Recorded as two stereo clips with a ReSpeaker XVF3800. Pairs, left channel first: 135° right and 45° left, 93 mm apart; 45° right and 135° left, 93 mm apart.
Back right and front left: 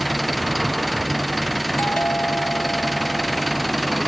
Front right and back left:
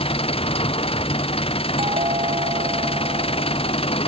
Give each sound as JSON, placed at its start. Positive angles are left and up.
{"t": 0.0, "sound": "an engine running", "azimuth_deg": -45}
{"t": 1.8, "sound": "a doorbell", "azimuth_deg": 155}